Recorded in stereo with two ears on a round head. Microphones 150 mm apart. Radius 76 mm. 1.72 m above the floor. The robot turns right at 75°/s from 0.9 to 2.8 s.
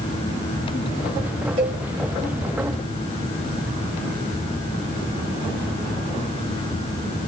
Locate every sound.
1.6 s a cowbell: 40° right (ahead or behind), 2 m; by 1.8 s 30° right (ahead or behind), 2 m